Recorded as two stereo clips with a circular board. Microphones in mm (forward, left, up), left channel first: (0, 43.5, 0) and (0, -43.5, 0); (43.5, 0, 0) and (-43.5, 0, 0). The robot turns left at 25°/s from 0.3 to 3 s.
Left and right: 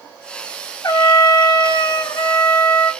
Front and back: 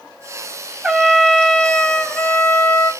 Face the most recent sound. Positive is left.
turn(degrees=50)